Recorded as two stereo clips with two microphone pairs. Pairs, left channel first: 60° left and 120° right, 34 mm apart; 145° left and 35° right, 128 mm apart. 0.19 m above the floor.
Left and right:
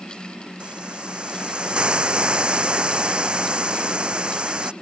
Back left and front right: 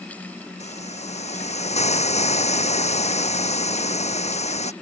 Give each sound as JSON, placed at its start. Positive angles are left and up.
{"t": 0.6, "sound": "a hiss", "azimuth_deg": 175}